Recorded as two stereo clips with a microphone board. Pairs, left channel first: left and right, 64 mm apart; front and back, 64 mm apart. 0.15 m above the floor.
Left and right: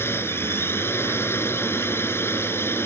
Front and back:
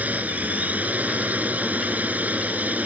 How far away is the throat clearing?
No throat clearing in this recording.